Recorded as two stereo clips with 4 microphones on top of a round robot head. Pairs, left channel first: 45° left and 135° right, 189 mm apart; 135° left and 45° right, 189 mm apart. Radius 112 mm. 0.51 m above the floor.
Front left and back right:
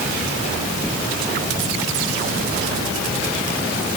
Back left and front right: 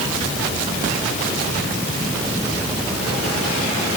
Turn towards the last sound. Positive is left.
No sound to turn to.